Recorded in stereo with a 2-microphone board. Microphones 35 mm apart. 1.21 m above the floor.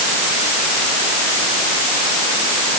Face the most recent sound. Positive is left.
No sound to turn to.